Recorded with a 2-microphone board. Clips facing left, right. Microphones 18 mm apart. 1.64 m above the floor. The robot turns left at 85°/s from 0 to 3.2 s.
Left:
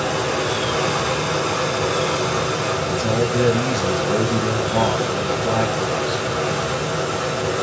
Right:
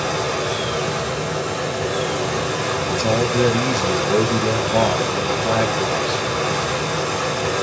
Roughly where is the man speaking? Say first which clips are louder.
Right 3 dB; right.